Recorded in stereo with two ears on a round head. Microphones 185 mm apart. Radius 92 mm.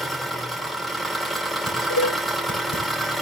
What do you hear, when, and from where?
0.0 s an engine running: centre (ahead or behind), 0.8 m
1.7 s dishes clattering: 80° left, 1.6 m